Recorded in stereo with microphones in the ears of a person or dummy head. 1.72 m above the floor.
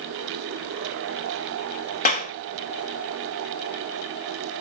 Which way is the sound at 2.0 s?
40° left (ahead or behind).